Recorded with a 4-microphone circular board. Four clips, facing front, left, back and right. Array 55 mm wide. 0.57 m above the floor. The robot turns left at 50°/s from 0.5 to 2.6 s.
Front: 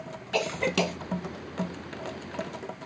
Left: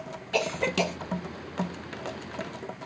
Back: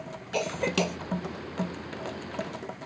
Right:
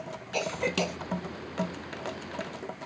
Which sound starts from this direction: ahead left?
A cough, at 0.3 s.